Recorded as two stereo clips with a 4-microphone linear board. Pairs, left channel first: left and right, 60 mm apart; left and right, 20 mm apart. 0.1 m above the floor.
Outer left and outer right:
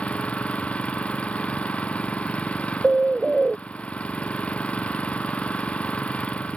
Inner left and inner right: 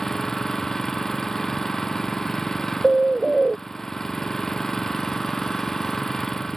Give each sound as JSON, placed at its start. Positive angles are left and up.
{"t": 0.0, "sound": "an engine running", "side_deg": 20}
{"t": 2.8, "sound": "a bird", "side_deg": -10}